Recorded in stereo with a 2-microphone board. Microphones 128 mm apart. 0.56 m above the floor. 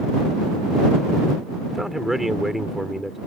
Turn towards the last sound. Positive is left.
turn(degrees=0)  # may be behind; listen again after turning